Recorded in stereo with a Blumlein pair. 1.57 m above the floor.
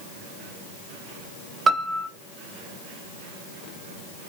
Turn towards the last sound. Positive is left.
turn(degrees=-20)